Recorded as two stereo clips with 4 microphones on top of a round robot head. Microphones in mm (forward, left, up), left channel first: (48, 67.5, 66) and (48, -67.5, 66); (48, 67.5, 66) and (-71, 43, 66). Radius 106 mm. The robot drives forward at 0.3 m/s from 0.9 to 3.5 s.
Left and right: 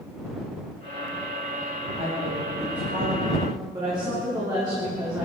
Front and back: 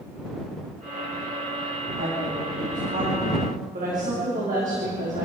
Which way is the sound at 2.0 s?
150° right.